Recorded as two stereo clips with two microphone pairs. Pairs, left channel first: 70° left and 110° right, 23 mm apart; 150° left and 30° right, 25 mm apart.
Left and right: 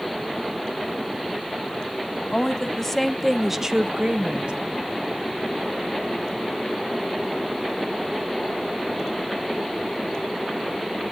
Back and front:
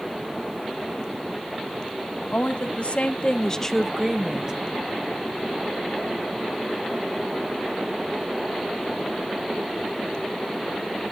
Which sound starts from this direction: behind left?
A woman speaking, at 2.3 s.